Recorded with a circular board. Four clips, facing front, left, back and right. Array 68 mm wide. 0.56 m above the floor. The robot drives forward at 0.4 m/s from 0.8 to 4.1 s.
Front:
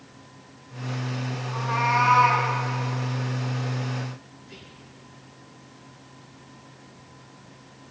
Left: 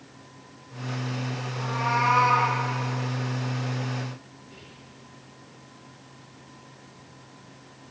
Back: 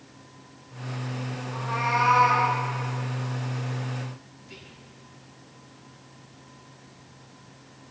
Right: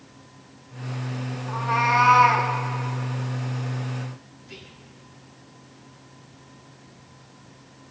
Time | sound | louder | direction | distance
1.5 | a cat meowing | right 6 dB, front 3 dB | 85° right | 10 m
4.4 | whispering | right 2 dB, front 1 dB | 120° right | 7 m